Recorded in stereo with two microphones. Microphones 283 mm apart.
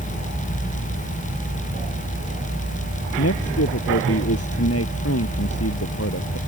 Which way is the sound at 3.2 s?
55° left (ahead or behind).